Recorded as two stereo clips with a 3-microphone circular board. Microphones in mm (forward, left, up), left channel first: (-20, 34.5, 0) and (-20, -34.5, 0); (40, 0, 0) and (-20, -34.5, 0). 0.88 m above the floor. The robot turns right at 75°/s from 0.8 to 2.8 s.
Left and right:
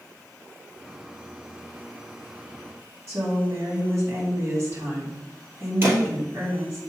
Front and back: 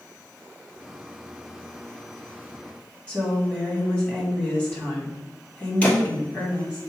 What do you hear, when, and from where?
3.1 s a woman speaking: 40° right, 2.5 m
5.8 s a thud: 40° right, 1.7 m